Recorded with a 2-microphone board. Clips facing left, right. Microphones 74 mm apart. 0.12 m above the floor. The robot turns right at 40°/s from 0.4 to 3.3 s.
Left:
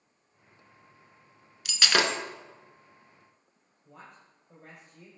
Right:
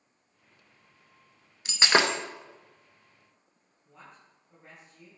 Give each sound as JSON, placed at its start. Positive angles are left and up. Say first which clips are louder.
{"t": 1.6, "sound": "breaking glass", "louder": "right 2 dB", "side_deg": -30, "distance_m": 0.7}
{"t": 3.9, "sound": "a woman speaking", "louder": "left 2 dB", "side_deg": 55, "distance_m": 3.0}